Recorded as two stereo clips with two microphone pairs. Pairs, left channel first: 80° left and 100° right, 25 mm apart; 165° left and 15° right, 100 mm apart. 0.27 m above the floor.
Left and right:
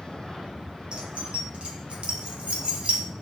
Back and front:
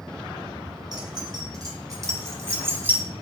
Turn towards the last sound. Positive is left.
turn(degrees=-85)